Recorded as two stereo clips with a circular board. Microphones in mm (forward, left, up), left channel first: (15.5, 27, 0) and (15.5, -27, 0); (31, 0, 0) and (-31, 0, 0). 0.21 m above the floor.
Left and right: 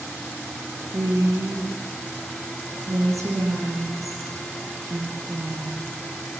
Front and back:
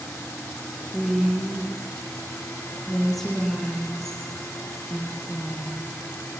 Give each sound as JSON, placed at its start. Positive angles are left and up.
{"t": 0.9, "sound": "a woman speaking", "azimuth_deg": -85, "distance_m": 5.5}